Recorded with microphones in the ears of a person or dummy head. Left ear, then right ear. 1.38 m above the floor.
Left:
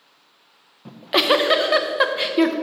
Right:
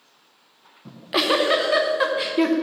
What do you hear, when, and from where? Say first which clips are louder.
0.8 s a giggle: left 3 dB; 20° left (ahead or behind), 0.6 m